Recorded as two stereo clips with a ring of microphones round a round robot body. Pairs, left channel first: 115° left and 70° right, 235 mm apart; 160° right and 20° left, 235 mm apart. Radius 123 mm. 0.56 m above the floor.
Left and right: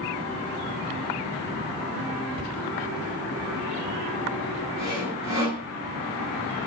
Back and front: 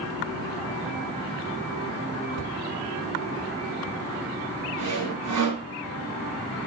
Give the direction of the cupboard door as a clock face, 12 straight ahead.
12 o'clock.